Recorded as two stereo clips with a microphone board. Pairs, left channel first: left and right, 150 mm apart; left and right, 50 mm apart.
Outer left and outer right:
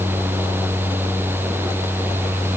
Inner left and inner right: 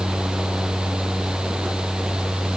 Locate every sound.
Only background noise.